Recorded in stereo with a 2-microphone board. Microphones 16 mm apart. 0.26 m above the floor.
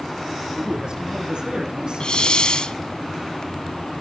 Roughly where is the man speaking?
Right.